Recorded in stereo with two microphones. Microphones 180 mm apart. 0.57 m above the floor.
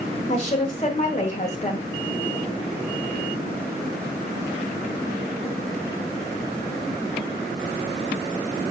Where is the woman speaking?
40° left (ahead or behind), 1.8 m.